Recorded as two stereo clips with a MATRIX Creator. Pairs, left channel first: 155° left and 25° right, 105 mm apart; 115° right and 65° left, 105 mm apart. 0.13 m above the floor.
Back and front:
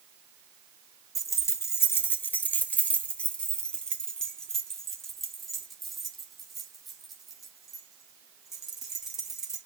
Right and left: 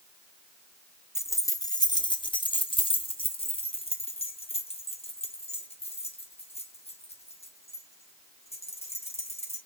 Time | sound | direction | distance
1.1 | keys jangling | 160° right | 1.1 m